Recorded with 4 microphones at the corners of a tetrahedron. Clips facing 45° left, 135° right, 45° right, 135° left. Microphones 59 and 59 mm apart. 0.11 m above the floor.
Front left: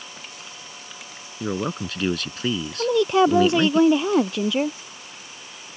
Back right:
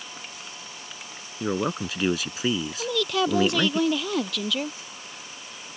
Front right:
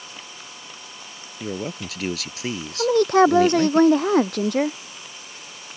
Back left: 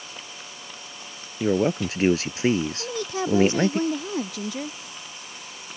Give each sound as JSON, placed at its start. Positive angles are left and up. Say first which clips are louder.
{"t": 1.4, "sound": "a man speaking", "louder": "even, back left 8 dB", "azimuth_deg": 150}
{"t": 2.8, "sound": "a woman speaking", "louder": "front left 9 dB, front right 13 dB", "azimuth_deg": -15}